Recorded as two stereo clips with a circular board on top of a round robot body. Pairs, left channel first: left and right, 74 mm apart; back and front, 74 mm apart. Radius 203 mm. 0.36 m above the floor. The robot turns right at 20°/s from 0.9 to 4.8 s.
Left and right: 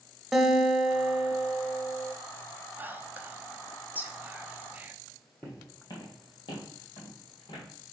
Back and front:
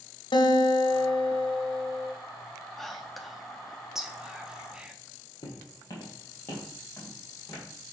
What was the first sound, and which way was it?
A guitar, 175° right.